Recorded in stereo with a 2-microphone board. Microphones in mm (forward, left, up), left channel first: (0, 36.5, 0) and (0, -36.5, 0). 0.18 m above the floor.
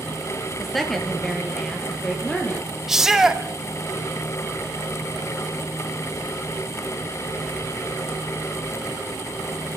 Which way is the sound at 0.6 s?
Centre (ahead or behind).